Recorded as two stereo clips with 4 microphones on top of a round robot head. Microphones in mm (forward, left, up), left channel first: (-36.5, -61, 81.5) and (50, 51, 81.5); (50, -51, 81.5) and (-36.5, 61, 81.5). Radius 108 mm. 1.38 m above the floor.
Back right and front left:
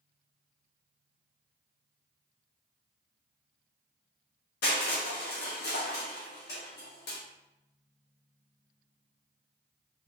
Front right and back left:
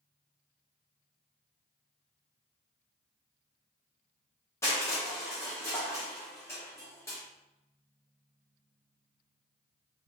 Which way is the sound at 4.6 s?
125° right.